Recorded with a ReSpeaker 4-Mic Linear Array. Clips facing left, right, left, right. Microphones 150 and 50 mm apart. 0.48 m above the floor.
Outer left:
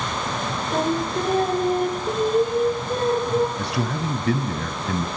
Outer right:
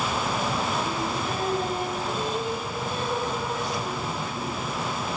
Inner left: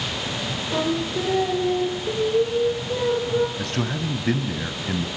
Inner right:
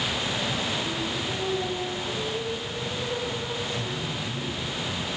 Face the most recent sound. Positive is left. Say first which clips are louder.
# outer left 4 dB, inner left 4 dB
turn(degrees=75)  # may be behind; listen again after turning